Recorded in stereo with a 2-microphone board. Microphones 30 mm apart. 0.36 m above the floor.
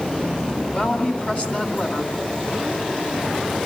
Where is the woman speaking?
50° left (ahead or behind), 2.5 m.